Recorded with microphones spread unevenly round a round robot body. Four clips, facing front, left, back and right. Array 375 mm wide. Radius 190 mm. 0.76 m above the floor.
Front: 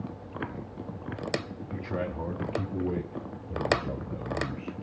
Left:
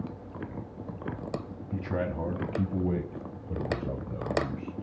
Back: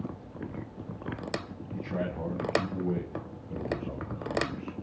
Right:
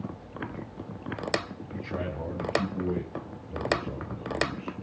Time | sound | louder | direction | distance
1.7 | a man speaking | left 3 dB, even | 90° left | 5.5 m